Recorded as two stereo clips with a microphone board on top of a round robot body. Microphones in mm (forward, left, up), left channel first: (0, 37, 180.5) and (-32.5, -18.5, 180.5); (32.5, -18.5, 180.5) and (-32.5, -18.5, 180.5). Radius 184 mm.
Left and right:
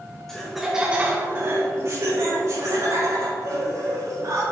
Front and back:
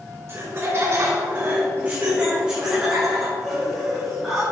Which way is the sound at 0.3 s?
140° left.